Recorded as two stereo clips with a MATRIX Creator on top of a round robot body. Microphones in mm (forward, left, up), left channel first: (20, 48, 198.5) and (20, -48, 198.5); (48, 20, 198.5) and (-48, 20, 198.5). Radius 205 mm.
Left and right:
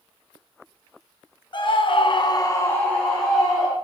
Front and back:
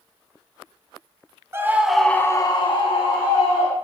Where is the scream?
120° left, 1.5 m; by 3.7 s straight ahead, 2.5 m.